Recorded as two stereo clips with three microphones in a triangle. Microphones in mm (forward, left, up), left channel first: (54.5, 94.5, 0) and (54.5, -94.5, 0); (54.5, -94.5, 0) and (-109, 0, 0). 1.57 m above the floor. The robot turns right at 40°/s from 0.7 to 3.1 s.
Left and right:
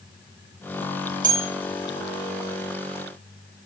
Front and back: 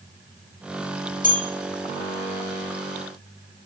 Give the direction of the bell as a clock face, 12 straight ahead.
2 o'clock.